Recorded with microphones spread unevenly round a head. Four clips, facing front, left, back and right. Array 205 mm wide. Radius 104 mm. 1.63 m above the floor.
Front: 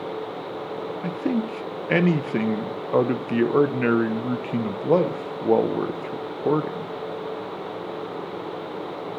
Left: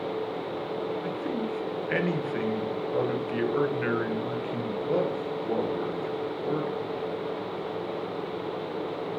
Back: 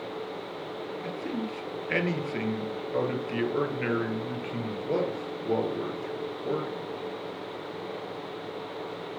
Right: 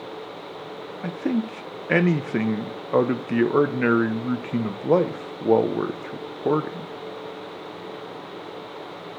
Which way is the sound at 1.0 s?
50° right.